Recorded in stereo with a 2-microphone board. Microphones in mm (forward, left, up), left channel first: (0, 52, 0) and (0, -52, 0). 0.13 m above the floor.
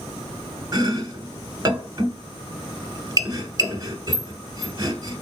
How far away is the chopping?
About 0.8 m.